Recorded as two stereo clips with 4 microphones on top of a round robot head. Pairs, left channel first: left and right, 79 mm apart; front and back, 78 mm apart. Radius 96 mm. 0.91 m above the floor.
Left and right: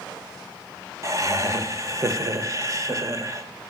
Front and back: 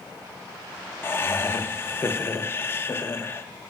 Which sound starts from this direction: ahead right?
Laughter, at 1.0 s.